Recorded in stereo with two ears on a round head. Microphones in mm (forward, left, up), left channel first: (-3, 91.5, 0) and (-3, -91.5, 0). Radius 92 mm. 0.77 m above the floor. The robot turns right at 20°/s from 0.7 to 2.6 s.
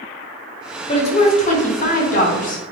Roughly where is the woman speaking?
Ahead left.